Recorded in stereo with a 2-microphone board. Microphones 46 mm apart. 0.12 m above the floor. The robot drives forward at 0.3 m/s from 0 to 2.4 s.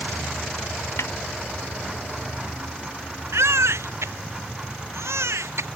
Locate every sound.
1.0 s a snare drum: 75° left (ahead or behind)
3.3 s a baby crying: 80° right